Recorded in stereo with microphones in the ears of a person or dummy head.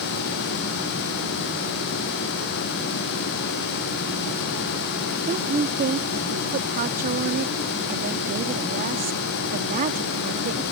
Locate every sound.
5.3 s a woman speaking: 50° right (ahead or behind)